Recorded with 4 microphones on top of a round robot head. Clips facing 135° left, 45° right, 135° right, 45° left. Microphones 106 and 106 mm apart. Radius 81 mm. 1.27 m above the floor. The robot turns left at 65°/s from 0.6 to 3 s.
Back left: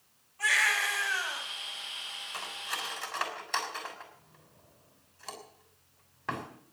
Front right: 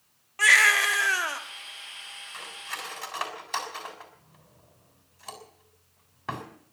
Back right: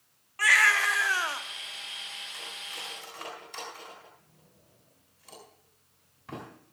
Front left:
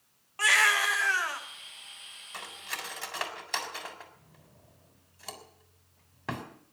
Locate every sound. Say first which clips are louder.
0.4 s a baby crying: front right 7 dB, back right 1 dB; 25° right, 1.8 m; by 1.4 s 75° right, 1.8 m
2.3 s cutlery clinking: back left 1 dB, front left 6 dB; 85° left, 3.5 m; by 6.5 s 40° left, 3.5 m